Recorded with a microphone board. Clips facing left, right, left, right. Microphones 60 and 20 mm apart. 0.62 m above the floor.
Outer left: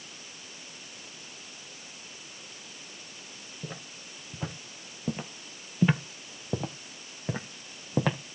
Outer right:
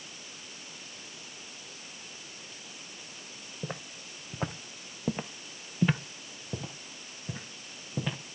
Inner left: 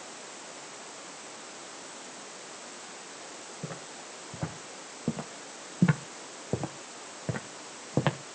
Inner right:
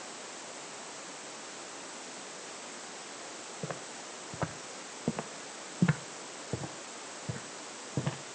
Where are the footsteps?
50° right (ahead or behind), 1.7 m; by 8.2 s 70° left (ahead or behind), 1.6 m.